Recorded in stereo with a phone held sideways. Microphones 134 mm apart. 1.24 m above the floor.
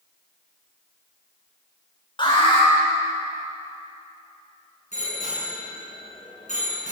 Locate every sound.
2.2 s an alarm: 35° left (ahead or behind), 7.5 m
4.9 s a bicycle bell: 60° left (ahead or behind), 10 m